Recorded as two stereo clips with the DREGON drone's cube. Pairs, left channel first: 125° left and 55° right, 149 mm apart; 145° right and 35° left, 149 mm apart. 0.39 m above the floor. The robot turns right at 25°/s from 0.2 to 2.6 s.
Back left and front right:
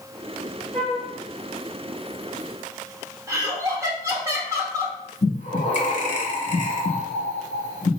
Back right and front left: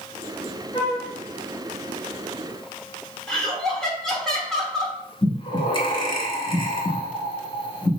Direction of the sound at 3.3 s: 65° right.